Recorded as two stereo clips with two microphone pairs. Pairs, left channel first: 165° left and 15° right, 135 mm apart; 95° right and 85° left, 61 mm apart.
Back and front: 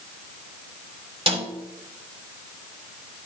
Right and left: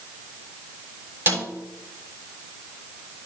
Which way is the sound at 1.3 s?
35° left.